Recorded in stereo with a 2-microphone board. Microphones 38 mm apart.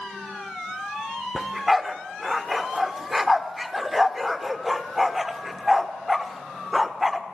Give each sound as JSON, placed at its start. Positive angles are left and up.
{"t": 1.4, "sound": "a dog barking", "side_deg": -5, "distance_m": 0.6}